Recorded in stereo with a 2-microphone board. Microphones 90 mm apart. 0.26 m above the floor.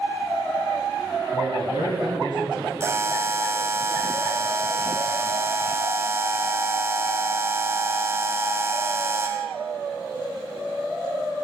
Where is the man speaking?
45° right (ahead or behind), 1.5 m; by 2.7 s 65° right (ahead or behind), 2.5 m.